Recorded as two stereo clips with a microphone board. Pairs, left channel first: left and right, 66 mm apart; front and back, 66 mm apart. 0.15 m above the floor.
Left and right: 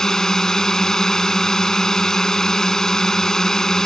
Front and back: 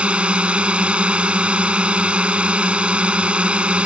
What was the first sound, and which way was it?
A drone, 155° left.